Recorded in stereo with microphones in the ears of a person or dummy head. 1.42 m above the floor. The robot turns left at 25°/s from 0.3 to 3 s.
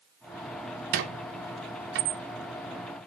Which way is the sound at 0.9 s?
50° right (ahead or behind).